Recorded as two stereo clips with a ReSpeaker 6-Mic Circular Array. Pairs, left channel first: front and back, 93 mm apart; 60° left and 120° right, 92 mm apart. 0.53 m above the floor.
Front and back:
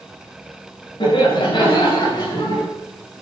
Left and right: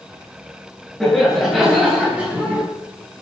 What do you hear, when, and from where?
1.0 s laughter: 30° right, 9 m; by 2.6 s 45° right, 9 m